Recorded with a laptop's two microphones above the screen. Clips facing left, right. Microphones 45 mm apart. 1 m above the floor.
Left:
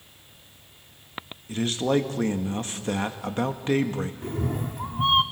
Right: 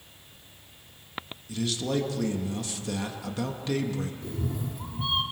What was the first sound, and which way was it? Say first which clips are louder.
A man speaking: left 5 dB; 40° left (ahead or behind).